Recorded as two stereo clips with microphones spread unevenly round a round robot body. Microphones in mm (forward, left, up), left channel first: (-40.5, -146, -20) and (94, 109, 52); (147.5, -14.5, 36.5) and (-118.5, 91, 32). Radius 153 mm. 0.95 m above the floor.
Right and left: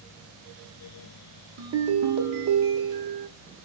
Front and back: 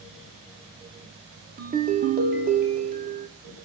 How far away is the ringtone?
About 0.9 m.